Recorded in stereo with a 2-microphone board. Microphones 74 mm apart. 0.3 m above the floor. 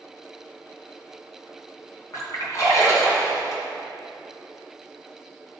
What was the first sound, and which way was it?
A splash, 45° left (ahead or behind).